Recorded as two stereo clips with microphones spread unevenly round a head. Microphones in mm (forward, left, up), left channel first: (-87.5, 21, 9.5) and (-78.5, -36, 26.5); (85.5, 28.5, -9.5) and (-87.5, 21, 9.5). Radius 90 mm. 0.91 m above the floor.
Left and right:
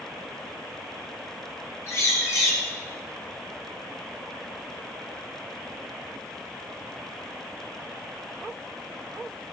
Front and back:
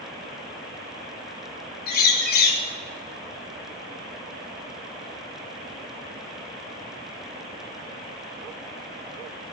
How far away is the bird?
About 1.8 m.